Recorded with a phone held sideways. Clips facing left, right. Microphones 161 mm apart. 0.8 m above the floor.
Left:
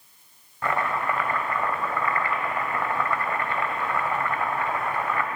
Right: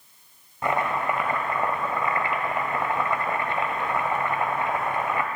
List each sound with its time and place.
0.6 s chopping: 20° right (ahead or behind), 1.0 m